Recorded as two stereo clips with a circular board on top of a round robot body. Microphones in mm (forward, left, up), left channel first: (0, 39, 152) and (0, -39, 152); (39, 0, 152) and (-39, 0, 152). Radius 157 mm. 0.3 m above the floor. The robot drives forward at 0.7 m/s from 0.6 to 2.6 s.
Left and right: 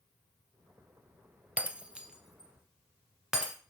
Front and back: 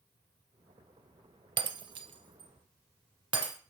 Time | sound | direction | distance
1.6 | breaking glass | 165° right | 0.5 m